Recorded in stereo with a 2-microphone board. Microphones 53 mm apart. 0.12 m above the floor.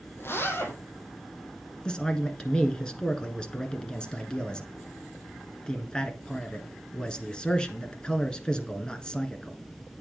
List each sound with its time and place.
0.2 s a zipper: 45° left (ahead or behind), 2.5 m
1.9 s a man speaking: 15° left (ahead or behind), 1.4 m